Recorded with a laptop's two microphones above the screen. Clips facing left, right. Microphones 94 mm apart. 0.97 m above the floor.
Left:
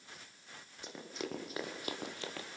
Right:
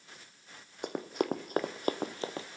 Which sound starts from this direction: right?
Running footsteps, at 0.8 s.